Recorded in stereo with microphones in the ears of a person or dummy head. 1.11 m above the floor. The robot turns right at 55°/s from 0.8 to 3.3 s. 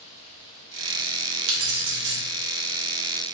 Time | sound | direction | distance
1.5 | keys jangling | 95° right | 1.3 m